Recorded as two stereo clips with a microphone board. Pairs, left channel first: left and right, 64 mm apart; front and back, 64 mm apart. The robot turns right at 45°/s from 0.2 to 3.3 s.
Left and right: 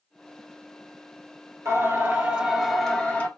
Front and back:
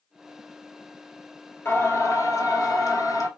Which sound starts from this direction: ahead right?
Singing, at 1.6 s.